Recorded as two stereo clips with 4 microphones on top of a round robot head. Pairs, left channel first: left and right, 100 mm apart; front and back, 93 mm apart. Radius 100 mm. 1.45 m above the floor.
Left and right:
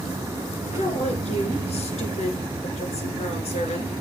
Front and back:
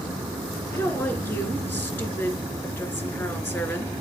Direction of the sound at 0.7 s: 60° left.